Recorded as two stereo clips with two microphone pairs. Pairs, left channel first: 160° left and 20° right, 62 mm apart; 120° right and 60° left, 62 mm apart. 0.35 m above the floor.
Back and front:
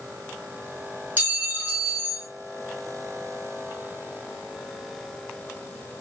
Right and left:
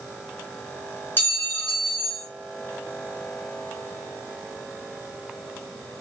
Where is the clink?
75° right, 1.5 m.